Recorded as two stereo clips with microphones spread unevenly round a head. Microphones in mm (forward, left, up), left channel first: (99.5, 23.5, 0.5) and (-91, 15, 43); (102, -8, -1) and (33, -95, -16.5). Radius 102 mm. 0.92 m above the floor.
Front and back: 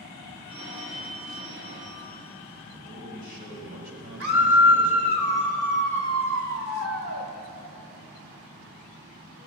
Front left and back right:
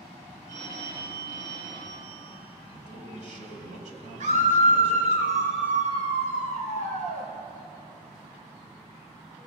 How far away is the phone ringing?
About 8.5 m.